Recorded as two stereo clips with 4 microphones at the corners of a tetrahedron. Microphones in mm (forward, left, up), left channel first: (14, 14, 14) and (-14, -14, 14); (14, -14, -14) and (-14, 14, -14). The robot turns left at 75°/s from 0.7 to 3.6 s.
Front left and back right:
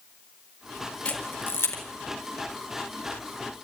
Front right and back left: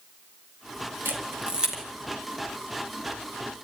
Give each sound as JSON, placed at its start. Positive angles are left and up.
{"t": 1.1, "sound": "a camera shutter", "azimuth_deg": 115, "distance_m": 4.0}